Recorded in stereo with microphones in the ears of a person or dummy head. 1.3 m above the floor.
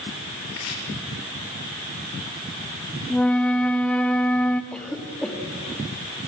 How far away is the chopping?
About 5.5 m.